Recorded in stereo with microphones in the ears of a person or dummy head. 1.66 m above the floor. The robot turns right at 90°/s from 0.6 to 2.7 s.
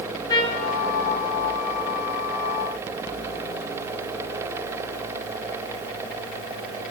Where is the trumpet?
20° left (ahead or behind), 0.8 m; by 0.7 s 10° left (ahead or behind), 0.8 m.